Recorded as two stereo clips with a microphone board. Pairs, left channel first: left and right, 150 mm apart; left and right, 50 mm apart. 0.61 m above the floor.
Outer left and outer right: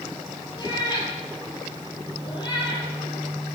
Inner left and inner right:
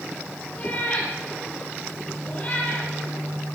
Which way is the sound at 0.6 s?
30° left (ahead or behind).